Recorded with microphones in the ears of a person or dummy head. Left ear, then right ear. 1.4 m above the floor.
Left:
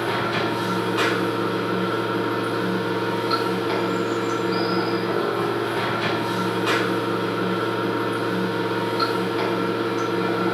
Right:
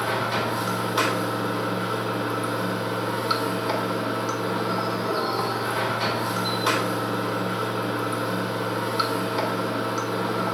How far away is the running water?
About 2.5 m.